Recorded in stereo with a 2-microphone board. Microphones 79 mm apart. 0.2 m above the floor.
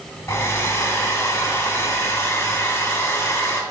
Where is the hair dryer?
30° left (ahead or behind), 1.9 m.